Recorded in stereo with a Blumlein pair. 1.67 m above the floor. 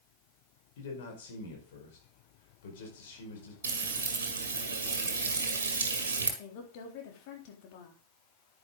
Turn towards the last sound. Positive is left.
turn(degrees=45)